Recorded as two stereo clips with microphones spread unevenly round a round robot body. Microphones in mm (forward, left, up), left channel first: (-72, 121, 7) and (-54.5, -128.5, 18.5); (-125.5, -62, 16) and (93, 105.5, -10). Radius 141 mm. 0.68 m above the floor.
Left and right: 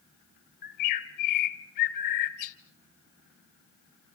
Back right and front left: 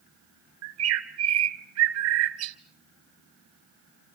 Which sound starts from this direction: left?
A bird, at 0.6 s.